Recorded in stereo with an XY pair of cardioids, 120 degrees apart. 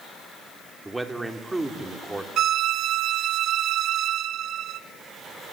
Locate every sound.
0.8 s a man speaking: 15° right, 3 m
2.4 s a violin: 60° right, 1.0 m